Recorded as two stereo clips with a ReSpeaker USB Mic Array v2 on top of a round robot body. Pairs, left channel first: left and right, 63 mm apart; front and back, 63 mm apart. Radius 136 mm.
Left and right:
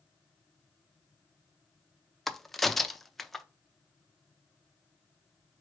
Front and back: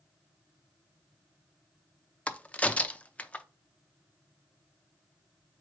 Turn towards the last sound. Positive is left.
turn(degrees=5)